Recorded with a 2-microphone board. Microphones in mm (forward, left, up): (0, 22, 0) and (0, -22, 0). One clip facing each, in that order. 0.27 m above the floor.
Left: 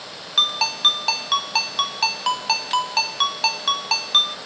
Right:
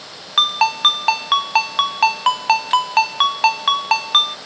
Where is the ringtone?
30° right (ahead or behind), 0.8 m.